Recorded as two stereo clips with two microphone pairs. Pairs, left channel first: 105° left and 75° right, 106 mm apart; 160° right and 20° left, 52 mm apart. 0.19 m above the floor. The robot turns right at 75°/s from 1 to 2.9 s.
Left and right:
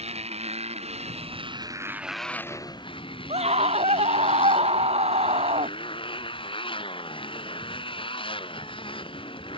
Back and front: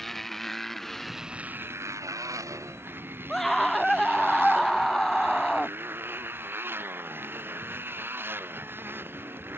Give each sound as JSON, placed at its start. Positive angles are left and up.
{"t": 0.0, "sound": "a motorcycle", "azimuth_deg": -75}
{"t": 3.3, "sound": "a scream", "azimuth_deg": -75}